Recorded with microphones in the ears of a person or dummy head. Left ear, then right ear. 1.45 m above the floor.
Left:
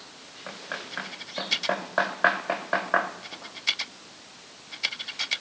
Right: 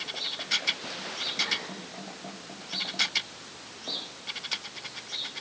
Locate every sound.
Only background noise.